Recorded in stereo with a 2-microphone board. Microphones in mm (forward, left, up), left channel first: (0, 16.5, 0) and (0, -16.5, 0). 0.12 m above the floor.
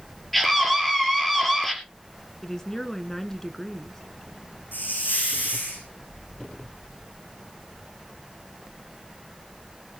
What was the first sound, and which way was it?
A scream, 5° left (ahead or behind).